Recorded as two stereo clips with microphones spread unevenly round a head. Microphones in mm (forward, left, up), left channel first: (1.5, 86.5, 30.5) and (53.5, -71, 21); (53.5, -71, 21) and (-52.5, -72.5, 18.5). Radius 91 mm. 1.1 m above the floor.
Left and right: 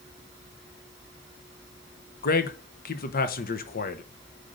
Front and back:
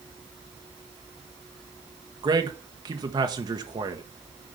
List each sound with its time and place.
2.2 s a man speaking: 135° left, 1.1 m